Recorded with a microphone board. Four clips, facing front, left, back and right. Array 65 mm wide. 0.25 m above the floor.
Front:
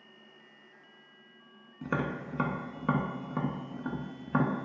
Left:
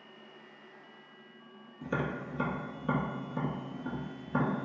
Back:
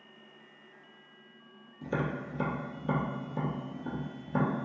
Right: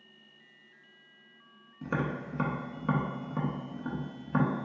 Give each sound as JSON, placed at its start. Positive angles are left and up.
{"t": 1.8, "sound": "tapping", "azimuth_deg": -20, "distance_m": 0.6}